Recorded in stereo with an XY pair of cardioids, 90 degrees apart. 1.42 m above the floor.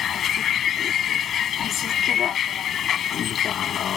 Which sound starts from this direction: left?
A vehicle, at 0.0 s.